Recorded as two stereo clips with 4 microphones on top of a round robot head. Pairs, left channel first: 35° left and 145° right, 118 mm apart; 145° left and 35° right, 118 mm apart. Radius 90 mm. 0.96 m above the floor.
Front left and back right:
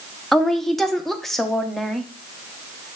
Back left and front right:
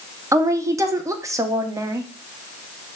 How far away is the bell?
No bell in this recording.